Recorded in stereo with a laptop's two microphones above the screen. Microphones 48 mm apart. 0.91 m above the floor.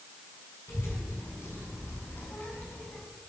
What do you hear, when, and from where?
0.7 s a child speaking: 65° left (ahead or behind), 5 m; by 3.0 s 35° left (ahead or behind), 4 m